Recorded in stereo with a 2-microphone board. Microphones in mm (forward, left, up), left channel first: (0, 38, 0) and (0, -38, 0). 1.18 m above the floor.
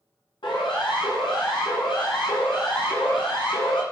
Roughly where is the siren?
Left.